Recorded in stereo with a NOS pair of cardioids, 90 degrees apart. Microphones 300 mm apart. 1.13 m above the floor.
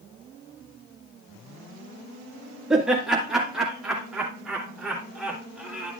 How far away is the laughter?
About 1.9 m.